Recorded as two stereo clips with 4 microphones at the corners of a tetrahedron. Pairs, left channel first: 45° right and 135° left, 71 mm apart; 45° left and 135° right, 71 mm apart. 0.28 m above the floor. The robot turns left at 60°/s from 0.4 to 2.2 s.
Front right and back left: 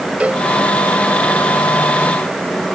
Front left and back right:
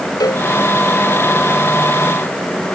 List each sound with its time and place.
0.2 s a cowbell: 65° left; by 0.5 s 60° left